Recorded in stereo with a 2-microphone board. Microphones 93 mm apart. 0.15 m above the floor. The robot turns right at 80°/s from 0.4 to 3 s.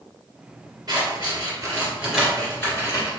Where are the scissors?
45° right (ahead or behind), 1.9 m; by 3.1 s 40° left (ahead or behind), 1.9 m.